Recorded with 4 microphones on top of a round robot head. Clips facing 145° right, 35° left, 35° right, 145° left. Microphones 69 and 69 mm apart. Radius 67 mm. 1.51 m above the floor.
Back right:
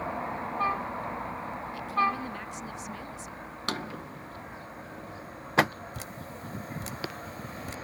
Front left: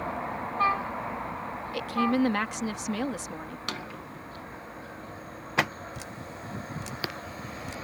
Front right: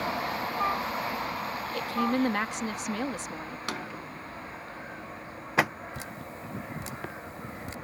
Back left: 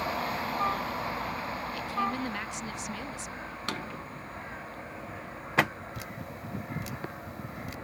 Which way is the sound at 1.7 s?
10° left.